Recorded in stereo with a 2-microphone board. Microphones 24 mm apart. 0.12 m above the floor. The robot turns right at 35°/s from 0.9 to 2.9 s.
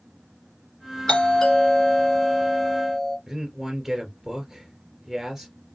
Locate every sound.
1.1 s a doorbell: 120° left, 2.5 m; by 3.2 s 175° right, 2.5 m
3.3 s a man speaking: 15° right (ahead or behind), 2 m